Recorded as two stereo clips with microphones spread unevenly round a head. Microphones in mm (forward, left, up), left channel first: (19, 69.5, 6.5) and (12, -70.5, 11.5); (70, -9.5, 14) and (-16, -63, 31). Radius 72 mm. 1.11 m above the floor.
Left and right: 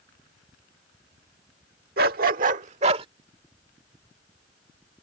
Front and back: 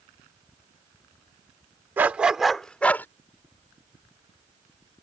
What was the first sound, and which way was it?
A dog barking, 80° right.